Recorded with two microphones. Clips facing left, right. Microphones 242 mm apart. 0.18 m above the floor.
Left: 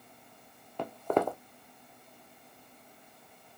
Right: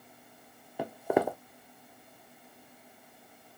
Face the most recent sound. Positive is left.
turn(degrees=-10)  # may be behind; listen again after turning